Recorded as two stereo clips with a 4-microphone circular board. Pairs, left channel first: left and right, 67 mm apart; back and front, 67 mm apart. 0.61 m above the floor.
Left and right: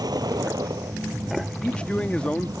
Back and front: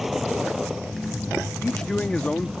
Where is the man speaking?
130° left.